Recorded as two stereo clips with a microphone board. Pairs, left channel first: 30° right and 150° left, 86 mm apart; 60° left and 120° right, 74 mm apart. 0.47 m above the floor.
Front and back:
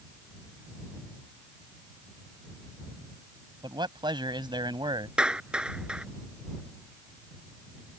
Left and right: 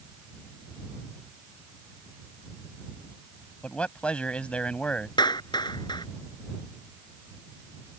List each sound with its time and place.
3.6 s a man speaking: 135° left
5.2 s a clap: 70° left